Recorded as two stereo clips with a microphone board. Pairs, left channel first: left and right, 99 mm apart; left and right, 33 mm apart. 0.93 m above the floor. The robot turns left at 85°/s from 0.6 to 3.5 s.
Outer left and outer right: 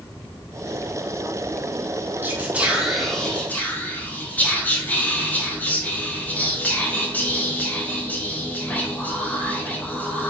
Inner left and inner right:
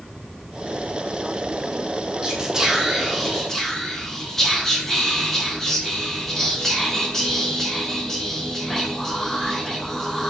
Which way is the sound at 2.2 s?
20° right (ahead or behind).